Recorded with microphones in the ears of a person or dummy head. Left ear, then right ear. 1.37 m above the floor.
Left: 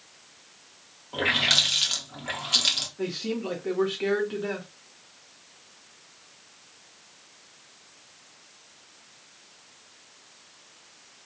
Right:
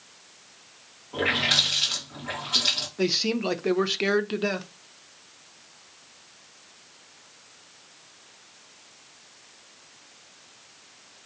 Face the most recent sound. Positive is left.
turn(degrees=-85)